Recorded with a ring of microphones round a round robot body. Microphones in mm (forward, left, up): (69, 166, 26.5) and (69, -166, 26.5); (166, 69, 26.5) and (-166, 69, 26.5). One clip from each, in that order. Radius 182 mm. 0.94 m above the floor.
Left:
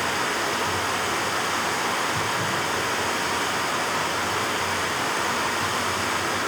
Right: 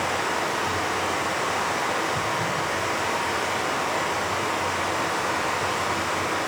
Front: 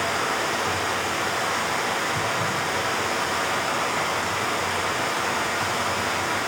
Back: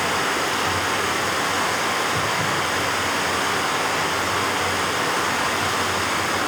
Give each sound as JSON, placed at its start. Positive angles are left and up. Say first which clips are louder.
{"t": 0.0, "sound": "running water", "louder": "even, back 2 dB", "azimuth_deg": 110, "distance_m": 0.9}